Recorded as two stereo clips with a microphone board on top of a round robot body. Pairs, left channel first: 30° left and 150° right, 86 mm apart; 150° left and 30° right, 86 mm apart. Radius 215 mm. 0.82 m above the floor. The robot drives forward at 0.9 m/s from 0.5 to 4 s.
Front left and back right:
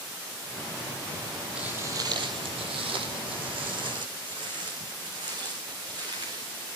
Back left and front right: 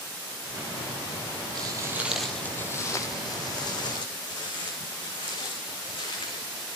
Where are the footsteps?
70° right, 1.4 m; by 6.8 s 170° left, 4.5 m.